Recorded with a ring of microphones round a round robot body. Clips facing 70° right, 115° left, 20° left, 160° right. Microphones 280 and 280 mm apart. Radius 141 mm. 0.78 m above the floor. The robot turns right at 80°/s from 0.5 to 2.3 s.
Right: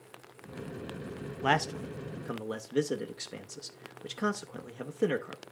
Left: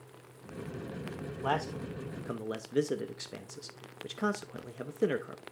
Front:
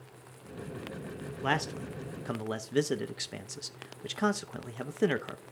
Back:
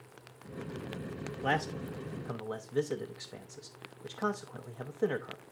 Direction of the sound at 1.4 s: 50° right.